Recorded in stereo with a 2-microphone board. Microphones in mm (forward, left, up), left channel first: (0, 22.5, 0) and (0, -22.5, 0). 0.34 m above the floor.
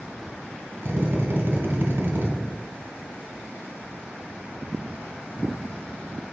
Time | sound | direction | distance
0.8 | a drill | 60° right (ahead or behind) | 1.6 m